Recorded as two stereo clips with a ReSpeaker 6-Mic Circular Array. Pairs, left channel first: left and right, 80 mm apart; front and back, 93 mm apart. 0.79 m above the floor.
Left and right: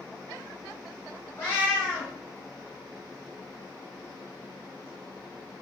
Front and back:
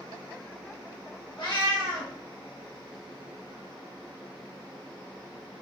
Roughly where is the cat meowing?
Ahead left.